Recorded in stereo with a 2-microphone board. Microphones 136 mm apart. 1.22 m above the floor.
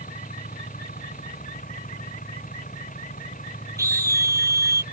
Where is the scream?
25° right (ahead or behind).